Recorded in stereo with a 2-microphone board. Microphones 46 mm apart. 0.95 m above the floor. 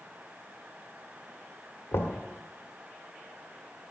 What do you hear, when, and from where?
1.9 s knocking: 70° left (ahead or behind), 1.6 m